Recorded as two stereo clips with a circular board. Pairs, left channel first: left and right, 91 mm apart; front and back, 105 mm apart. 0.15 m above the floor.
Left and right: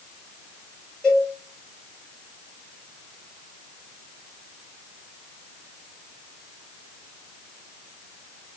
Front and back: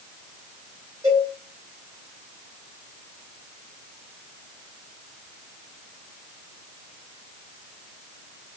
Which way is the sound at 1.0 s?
170° left.